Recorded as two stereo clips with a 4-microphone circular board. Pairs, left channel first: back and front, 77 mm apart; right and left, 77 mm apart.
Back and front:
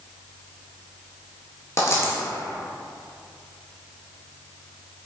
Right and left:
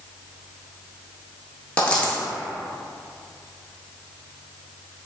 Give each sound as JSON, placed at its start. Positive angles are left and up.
{"t": 1.8, "sound": "a dropped coin", "azimuth_deg": -155, "distance_m": 0.6}